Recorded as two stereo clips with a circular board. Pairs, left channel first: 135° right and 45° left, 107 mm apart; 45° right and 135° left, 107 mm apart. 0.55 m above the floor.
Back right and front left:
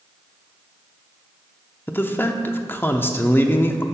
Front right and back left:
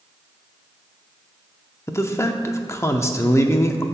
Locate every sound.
1.9 s a man speaking: 80° right, 0.7 m